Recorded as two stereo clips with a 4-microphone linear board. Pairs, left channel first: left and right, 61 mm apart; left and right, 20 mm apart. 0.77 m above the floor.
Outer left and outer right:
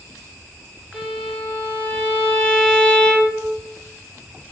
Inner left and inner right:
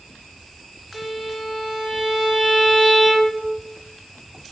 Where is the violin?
5° left (ahead or behind), 1.0 m.